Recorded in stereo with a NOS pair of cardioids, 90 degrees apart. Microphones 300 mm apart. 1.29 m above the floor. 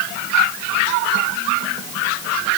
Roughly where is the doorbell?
I don't hear a doorbell.